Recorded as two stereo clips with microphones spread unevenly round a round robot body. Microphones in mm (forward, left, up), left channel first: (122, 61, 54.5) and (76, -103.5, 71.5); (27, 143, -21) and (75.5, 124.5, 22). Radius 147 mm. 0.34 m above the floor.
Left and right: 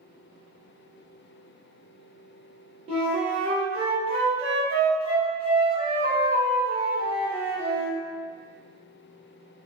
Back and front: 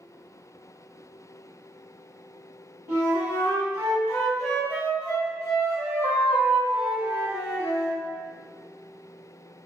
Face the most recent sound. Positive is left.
turn(degrees=-125)